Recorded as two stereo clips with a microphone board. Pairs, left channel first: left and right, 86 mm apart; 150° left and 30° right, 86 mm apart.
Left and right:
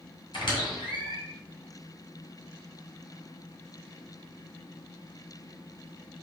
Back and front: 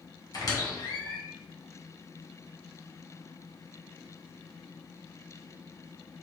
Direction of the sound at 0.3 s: 105° left.